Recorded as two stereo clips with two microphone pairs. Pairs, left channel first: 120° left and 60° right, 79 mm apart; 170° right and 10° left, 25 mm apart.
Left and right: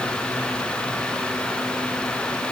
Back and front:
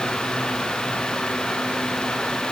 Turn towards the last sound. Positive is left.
No sound to turn to.